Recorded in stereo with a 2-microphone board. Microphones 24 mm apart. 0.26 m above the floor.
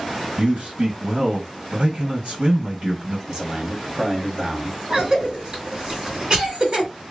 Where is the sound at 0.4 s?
35° right (ahead or behind), 1.9 m.